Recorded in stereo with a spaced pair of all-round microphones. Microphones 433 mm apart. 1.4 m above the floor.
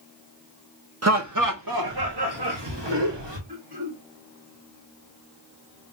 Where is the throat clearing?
60° right (ahead or behind), 2 m.